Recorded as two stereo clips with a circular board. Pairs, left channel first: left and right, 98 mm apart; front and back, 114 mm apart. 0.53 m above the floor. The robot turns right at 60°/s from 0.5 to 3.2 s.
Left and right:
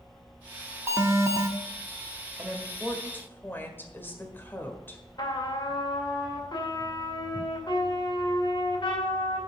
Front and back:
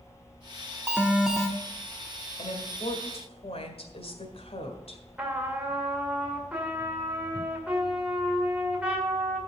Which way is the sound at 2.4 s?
25° right.